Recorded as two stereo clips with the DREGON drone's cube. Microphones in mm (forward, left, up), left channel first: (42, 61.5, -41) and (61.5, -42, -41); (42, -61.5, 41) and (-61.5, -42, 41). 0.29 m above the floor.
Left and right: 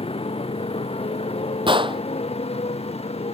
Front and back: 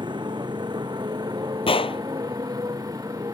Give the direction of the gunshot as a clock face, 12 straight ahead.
1 o'clock.